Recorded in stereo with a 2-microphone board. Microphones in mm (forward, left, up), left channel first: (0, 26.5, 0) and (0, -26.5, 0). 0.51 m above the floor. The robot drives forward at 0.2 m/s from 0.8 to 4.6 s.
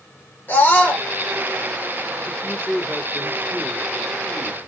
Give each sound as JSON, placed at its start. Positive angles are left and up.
{"t": 0.5, "sound": "a scream", "side_deg": 35, "distance_m": 1.7}
{"t": 2.2, "sound": "a man speaking", "side_deg": 25, "distance_m": 1.3}